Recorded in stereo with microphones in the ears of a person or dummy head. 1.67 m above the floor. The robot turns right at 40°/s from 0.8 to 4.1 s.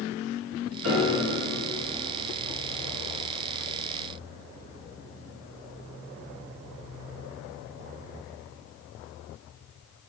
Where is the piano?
60° right (ahead or behind), 0.8 m; by 1.3 s 45° right (ahead or behind), 0.8 m.